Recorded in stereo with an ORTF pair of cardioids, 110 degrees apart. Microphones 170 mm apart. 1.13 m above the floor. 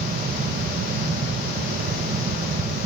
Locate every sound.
0.0 s a fan: 60° right, 0.8 m